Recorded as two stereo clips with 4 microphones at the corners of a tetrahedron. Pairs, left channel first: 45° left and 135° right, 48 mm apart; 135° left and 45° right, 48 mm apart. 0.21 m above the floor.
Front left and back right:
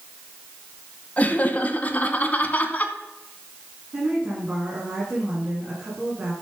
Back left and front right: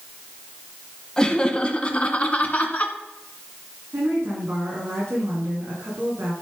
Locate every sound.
1.2 s laughter: 75° left, 1.6 m; by 2.9 s 95° left, 2 m
3.9 s a woman speaking: 70° right, 8 m